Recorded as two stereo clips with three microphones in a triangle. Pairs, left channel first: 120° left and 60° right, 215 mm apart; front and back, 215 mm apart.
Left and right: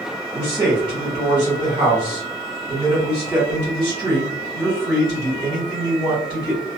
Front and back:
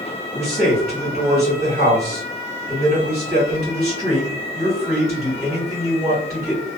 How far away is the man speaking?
About 1.6 m.